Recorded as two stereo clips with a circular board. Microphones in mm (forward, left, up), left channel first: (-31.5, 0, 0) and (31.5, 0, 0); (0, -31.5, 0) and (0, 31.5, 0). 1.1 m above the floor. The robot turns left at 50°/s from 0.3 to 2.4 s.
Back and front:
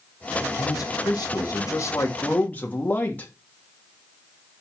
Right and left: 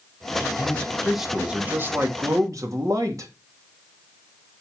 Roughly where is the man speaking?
Behind right.